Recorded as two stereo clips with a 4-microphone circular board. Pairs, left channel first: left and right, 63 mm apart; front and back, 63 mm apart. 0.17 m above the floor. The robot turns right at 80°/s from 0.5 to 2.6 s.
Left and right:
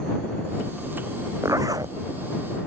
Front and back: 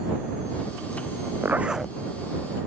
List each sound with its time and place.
1.4 s a zipper: 125° right; by 2.0 s 80° right